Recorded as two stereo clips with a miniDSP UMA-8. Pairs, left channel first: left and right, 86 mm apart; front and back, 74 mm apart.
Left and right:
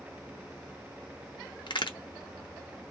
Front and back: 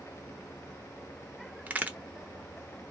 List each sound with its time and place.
1.7 s a crack: 110° left, 0.6 m